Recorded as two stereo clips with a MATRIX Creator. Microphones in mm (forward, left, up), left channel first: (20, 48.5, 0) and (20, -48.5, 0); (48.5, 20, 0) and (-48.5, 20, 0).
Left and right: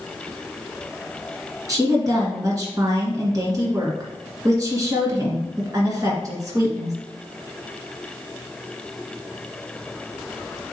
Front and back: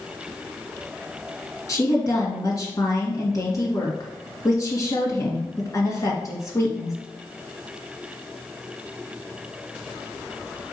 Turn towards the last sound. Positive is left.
turn(degrees=-45)